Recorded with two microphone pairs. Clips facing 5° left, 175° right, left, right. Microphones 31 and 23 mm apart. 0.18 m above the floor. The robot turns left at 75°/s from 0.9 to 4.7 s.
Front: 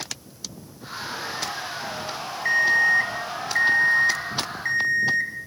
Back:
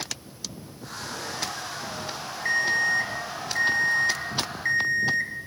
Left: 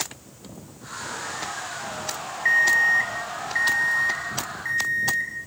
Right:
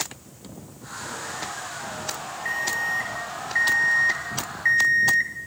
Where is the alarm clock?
75° left, 0.6 m; by 5.3 s 90° right, 0.6 m.